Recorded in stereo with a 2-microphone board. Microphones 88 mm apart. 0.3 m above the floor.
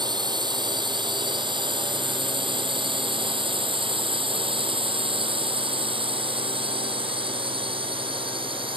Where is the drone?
55° right (ahead or behind); by 8.8 s 75° right (ahead or behind).